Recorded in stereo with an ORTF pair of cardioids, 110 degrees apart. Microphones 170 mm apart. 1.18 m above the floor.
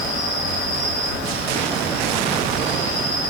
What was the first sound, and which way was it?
An insect, 55° left.